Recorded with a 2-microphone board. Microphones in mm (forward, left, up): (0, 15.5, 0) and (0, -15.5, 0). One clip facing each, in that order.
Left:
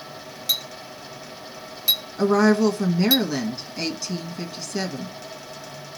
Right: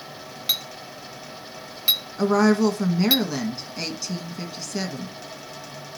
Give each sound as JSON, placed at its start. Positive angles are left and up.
{"t": 0.5, "sound": "a clink", "side_deg": -30, "distance_m": 0.9}
{"t": 2.2, "sound": "a woman speaking", "side_deg": 0, "distance_m": 1.7}